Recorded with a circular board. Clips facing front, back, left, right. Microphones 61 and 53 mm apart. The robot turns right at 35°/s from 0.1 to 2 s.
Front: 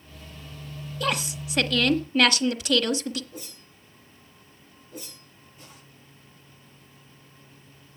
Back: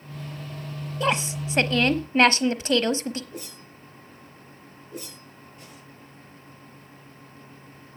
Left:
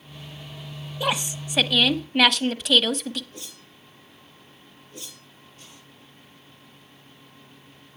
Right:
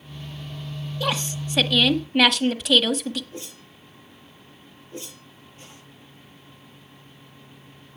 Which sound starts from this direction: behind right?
A whoosh, at 3.3 s.